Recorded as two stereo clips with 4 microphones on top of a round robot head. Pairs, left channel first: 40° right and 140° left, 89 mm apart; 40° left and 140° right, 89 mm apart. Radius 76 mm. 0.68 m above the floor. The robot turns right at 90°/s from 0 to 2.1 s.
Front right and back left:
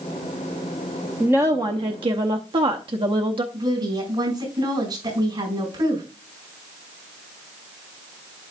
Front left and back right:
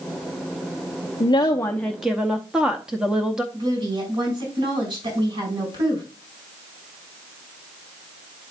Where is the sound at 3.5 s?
175° right, 5 m.